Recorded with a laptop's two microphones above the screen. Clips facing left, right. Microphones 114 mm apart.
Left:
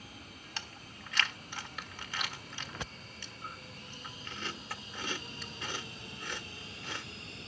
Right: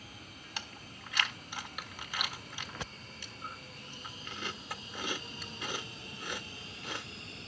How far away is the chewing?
About 1.2 m.